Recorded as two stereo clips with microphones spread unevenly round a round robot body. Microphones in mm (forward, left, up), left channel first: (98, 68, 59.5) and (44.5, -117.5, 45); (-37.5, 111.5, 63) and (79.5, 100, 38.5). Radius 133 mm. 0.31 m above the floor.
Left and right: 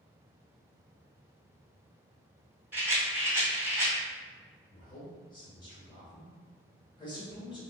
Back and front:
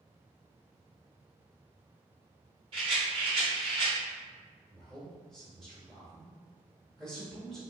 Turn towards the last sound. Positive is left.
turn(degrees=60)